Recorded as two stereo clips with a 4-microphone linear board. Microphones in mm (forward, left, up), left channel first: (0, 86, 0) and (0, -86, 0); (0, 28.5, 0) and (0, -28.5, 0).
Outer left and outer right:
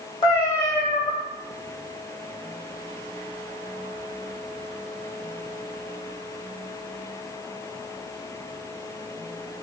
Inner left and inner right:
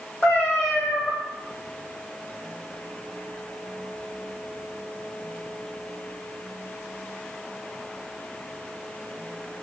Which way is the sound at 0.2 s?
30° left (ahead or behind).